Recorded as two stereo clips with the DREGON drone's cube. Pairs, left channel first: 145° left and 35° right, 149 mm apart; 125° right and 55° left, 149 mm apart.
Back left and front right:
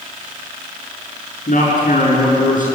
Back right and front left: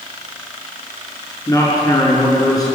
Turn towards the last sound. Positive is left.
turn(degrees=170)